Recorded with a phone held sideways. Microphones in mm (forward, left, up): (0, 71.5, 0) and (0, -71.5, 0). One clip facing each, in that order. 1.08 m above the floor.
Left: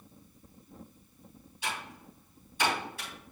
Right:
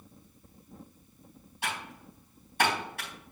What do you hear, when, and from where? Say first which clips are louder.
1.6 s typing on a keyboard: right 1 dB; 60° right (ahead or behind), 4 m